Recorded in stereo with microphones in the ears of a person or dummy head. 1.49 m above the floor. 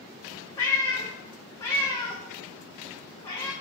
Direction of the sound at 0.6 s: 15° left (ahead or behind).